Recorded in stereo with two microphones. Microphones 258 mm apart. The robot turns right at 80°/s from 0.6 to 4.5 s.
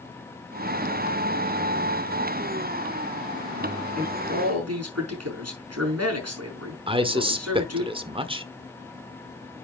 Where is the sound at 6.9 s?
20° right (ahead or behind), 1.1 m.